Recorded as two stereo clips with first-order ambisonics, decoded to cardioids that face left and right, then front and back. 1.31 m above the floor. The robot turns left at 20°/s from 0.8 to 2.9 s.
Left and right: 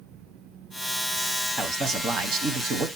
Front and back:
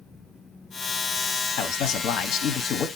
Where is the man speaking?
25° right, 0.9 m; by 2.9 s 50° right, 0.9 m.